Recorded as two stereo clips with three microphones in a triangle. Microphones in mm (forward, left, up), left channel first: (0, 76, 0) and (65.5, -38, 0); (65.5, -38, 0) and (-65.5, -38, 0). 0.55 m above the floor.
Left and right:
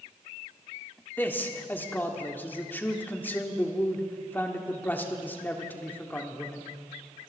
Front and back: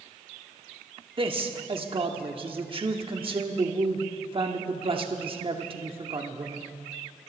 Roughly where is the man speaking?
Behind.